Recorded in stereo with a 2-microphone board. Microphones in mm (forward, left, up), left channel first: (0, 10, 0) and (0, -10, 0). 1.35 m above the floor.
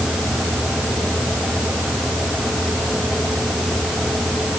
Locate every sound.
Only background noise.